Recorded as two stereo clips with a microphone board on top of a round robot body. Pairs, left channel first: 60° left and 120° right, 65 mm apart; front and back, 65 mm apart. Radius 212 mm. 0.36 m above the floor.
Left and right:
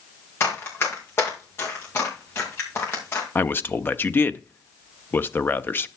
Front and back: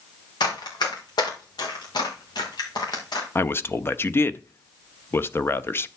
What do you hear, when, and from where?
0.4 s running footsteps: 5° left, 6.5 m; by 3.2 s 10° left, 5 m
3.4 s a man speaking: 25° left, 1.1 m